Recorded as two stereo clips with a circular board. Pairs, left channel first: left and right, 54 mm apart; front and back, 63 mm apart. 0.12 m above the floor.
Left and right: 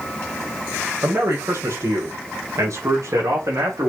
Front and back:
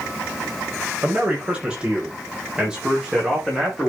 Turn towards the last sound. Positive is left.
turn(degrees=-95)